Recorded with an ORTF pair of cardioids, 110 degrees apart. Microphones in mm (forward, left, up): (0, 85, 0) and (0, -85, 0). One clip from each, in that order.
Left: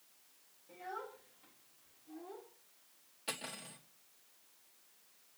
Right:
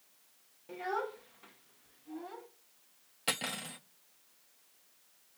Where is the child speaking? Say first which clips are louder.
Right 9 dB; 60° right, 1.1 m; by 2.5 s 75° right, 2 m.